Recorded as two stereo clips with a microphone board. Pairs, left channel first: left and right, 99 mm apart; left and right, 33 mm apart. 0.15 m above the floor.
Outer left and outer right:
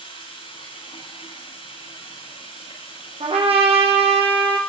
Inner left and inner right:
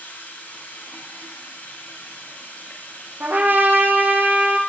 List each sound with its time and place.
0.0 s running water: 55° left (ahead or behind), 9.5 m
3.2 s a trumpet: 80° right, 7.5 m